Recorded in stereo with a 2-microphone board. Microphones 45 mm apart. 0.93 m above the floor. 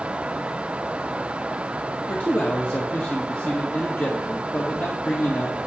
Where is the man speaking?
50° left (ahead or behind), 1.4 m.